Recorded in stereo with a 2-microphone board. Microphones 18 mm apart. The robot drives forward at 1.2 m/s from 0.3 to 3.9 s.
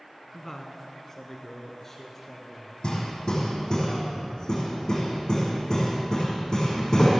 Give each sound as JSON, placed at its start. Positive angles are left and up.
{"t": 0.3, "sound": "a man speaking", "side_deg": 25, "distance_m": 1.9}
{"t": 2.8, "sound": "hammering", "side_deg": 45, "distance_m": 4.5}